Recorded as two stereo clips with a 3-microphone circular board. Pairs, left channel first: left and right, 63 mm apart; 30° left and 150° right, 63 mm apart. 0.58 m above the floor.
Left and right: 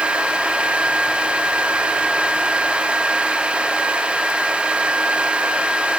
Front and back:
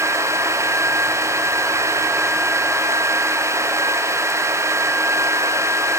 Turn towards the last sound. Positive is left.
No sound to turn to.